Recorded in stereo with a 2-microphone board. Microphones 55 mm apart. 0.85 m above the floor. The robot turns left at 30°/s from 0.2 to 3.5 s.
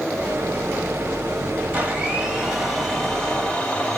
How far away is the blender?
About 1.3 m.